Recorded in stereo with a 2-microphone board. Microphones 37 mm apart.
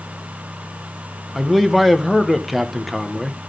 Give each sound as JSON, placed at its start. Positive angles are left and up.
{"t": 1.4, "sound": "a man speaking", "side_deg": 0, "distance_m": 1.0}